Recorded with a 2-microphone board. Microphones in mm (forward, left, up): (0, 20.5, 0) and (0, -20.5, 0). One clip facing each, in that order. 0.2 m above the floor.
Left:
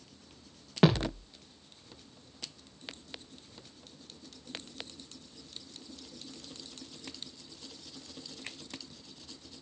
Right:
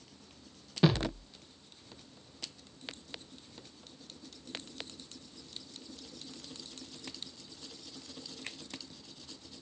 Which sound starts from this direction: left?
A thud, at 0.8 s.